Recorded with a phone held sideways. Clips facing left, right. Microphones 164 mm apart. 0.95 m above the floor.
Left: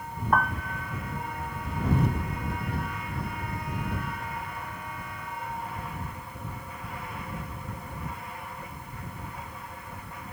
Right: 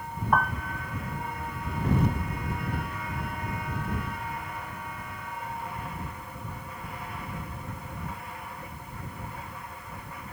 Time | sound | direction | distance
0.3 | a piano | centre (ahead or behind) | ?